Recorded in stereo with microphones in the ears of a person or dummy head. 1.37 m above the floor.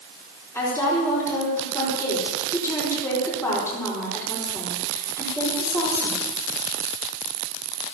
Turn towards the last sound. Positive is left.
turn(degrees=20)  # may be behind; listen again after turning